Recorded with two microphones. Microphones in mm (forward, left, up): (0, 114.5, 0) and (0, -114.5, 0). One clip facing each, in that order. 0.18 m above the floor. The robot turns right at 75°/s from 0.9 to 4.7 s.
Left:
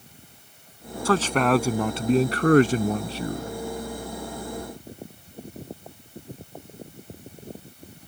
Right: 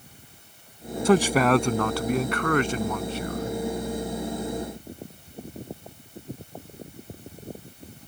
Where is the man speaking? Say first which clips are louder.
Right 2 dB; 35° right; by 3.5 s 145° left.